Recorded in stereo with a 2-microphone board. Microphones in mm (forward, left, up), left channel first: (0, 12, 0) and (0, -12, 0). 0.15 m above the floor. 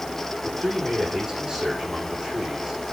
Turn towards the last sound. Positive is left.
turn(degrees=-10)  # may be behind; listen again after turning